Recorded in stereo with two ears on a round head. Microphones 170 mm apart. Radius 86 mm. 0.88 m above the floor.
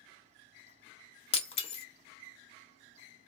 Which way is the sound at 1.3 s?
30° left (ahead or behind).